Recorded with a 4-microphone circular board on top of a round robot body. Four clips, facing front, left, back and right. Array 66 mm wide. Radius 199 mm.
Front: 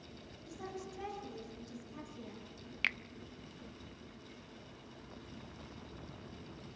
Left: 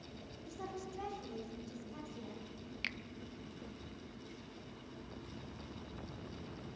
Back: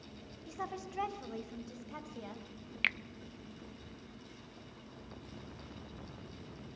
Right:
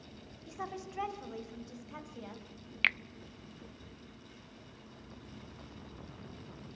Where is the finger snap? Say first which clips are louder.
Right 13 dB, back 2 dB; 100° right, 0.6 m.